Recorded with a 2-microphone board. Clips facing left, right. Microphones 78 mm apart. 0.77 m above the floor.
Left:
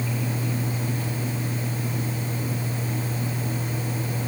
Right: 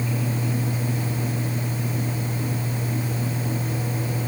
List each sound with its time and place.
Only background noise.